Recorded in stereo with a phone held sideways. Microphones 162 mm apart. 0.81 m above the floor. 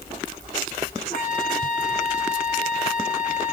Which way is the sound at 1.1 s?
50° left (ahead or behind).